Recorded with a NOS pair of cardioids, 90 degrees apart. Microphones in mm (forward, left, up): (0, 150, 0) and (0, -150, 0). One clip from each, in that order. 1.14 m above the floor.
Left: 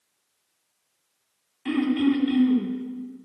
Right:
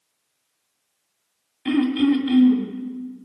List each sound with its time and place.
1.6 s throat clearing: 25° right, 2.5 m